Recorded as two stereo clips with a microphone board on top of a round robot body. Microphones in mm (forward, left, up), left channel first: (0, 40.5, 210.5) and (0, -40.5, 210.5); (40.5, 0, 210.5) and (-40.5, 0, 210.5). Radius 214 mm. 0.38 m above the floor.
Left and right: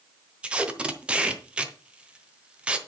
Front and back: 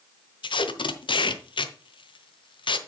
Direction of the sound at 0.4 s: 15° right.